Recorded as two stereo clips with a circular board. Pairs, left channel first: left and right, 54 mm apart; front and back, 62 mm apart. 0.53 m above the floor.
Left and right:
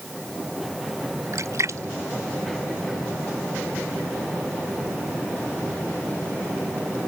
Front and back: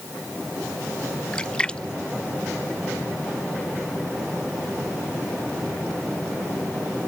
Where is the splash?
75° right.